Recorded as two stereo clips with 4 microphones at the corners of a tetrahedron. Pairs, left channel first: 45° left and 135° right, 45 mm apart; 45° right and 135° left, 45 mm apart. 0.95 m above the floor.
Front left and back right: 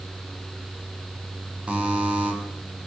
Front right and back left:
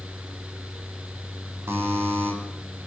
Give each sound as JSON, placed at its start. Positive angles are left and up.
{"t": 1.7, "sound": "a buzzer", "azimuth_deg": 160, "distance_m": 7.5}